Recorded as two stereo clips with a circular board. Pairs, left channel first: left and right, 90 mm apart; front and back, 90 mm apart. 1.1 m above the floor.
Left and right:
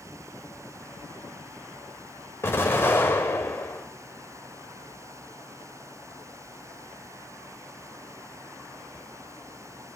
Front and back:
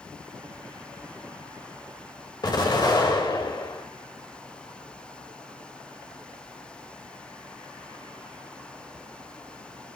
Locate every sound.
2.4 s an explosion: 30° left, 1.6 m